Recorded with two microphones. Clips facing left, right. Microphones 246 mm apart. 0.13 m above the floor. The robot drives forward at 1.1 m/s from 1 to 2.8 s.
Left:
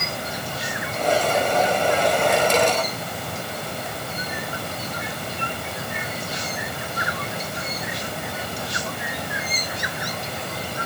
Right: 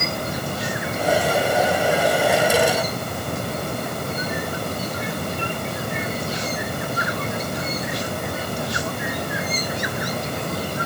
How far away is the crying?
No crying in this recording.